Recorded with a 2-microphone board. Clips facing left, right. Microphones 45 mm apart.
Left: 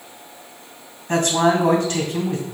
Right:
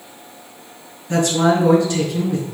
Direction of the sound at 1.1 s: 55° left (ahead or behind).